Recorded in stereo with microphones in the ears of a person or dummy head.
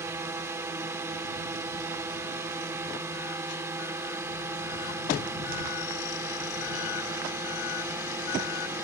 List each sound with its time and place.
0.0 s a drone: 20° right (ahead or behind)